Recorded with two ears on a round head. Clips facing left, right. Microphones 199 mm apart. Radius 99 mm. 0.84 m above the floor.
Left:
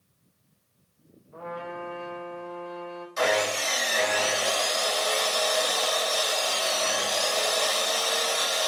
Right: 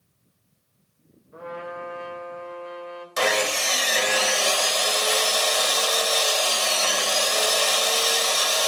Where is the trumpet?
25° right (ahead or behind), 3.5 m.